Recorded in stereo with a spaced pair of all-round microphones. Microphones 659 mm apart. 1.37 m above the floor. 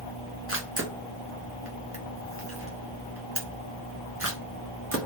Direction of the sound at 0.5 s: 20° right (ahead or behind).